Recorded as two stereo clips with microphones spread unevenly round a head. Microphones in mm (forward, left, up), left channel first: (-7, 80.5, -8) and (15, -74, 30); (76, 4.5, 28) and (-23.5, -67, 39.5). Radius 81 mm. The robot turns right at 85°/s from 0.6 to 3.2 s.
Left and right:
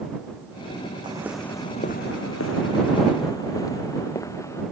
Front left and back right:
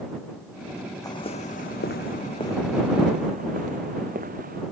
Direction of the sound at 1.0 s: 25° right.